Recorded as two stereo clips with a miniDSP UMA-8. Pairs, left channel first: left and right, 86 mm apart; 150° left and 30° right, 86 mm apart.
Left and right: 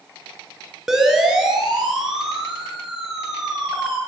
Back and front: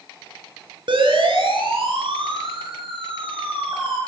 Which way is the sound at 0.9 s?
5° right.